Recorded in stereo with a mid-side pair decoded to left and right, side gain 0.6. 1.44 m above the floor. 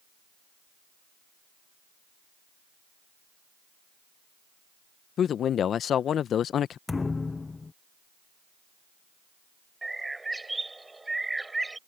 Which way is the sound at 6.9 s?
20° left.